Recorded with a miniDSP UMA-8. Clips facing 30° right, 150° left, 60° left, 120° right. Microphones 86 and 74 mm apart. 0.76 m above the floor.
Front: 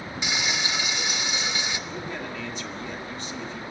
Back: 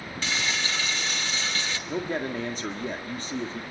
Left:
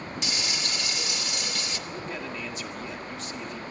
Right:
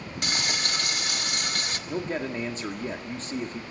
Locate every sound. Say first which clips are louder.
0.2 s frying: even, right 6 dB; 100° right, 1.6 m
1.9 s a man speaking: back 5 dB, right 9 dB; 170° right, 1.8 m